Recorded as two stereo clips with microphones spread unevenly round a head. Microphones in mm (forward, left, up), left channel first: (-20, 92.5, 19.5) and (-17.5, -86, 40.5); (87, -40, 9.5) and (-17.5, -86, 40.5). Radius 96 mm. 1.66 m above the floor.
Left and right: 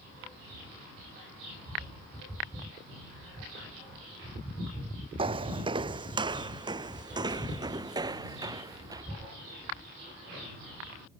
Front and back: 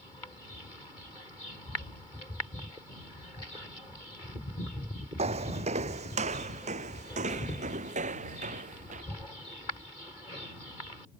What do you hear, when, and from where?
5.2 s footsteps: 145° right; by 9.0 s 160° right